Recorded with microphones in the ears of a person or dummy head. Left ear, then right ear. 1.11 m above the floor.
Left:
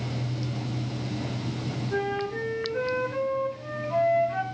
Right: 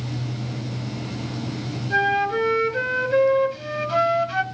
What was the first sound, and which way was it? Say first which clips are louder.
A flute: right 9 dB; 50° right (ahead or behind).